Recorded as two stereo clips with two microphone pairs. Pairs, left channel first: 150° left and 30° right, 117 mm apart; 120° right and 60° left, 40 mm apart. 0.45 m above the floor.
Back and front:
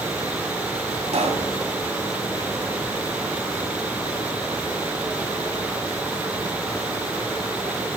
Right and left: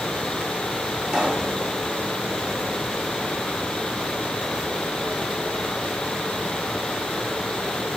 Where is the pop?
5° right, 1.5 m.